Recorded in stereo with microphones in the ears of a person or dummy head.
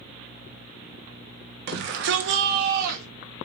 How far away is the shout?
About 1.0 m.